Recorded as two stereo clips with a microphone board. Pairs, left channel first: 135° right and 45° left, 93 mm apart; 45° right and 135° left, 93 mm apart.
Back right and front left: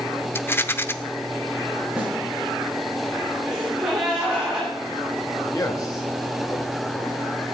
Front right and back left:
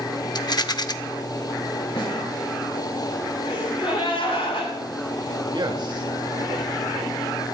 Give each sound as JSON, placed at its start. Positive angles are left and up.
{"t": 0.3, "sound": "a rattle", "azimuth_deg": -75, "distance_m": 0.7}
{"t": 2.0, "sound": "a snare drum", "azimuth_deg": -35, "distance_m": 7.5}
{"t": 3.5, "sound": "a gasp", "azimuth_deg": -35, "distance_m": 8.0}
{"t": 5.5, "sound": "a man speaking", "azimuth_deg": 175, "distance_m": 3.0}